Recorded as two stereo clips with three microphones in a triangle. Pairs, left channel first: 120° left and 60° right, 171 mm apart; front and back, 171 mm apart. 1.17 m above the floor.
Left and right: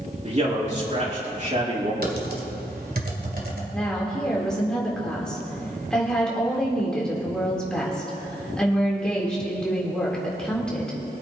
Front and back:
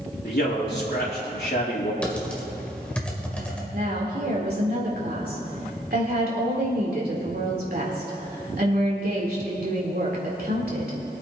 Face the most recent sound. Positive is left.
turn(degrees=-155)